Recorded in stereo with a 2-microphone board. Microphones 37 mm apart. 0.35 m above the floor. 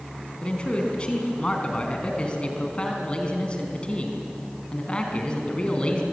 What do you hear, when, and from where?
0.4 s a man speaking: 30° left (ahead or behind), 4 m